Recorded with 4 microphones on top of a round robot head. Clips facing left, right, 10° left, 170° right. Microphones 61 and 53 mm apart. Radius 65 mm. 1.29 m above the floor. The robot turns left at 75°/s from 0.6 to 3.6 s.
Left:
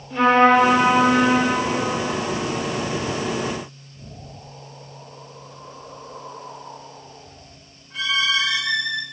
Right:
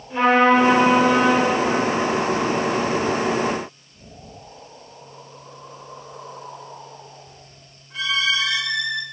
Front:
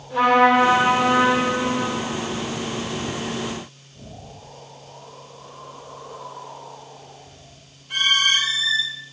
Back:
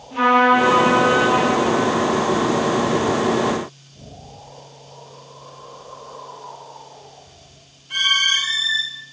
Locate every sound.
0.1 s a trumpet: 20° right, 1.6 m; by 1.5 s 90° right, 1.6 m